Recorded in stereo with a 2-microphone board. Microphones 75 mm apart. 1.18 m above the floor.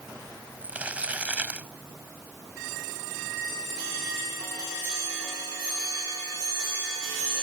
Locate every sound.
0.6 s crumpling: 20° right (ahead or behind)